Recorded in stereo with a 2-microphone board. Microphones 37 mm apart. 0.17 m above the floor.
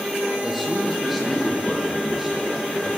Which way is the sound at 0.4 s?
Centre (ahead or behind).